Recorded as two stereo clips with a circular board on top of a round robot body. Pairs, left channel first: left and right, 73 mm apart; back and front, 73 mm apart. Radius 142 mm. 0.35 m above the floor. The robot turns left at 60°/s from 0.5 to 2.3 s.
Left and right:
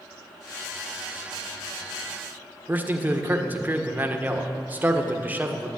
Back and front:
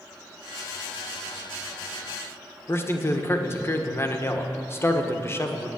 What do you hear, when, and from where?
2.7 s a man speaking: 145° right, 1.6 m